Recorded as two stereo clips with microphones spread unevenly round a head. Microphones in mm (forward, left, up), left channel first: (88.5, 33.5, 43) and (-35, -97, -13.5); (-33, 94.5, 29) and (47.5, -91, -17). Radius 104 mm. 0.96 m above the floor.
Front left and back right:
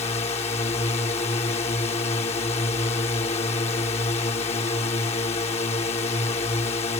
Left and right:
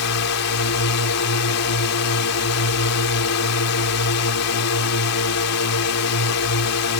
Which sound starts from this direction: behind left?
A drone, at 0.0 s.